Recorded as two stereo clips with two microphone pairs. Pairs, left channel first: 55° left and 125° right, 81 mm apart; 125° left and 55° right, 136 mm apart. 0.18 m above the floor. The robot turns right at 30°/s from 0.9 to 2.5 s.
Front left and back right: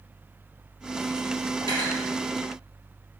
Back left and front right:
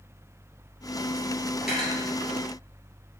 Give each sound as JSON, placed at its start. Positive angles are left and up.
{"t": 1.6, "sound": "cutlery clinking", "azimuth_deg": 30, "distance_m": 1.9}